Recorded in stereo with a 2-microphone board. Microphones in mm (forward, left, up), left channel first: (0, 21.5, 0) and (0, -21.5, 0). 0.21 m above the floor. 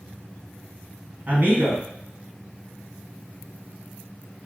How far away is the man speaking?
About 1.3 m.